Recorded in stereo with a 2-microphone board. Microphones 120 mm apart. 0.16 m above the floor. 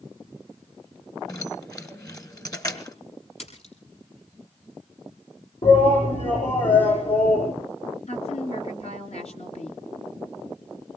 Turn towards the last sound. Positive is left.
turn(degrees=60)  # may be behind; listen again after turning